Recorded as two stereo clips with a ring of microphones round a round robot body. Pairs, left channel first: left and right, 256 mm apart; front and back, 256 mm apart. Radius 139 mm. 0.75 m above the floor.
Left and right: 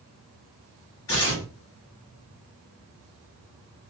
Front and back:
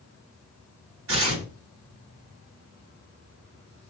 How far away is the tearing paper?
About 1.4 m.